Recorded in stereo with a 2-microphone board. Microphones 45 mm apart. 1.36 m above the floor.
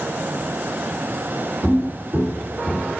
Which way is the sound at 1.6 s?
35° right (ahead or behind).